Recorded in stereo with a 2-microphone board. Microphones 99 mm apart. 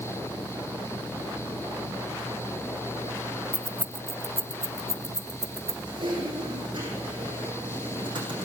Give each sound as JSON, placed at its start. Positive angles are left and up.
{"t": 3.5, "sound": "keys jangling", "side_deg": -15, "distance_m": 0.7}
{"t": 5.9, "sound": "typing on a keyboard", "side_deg": -50, "distance_m": 7.0}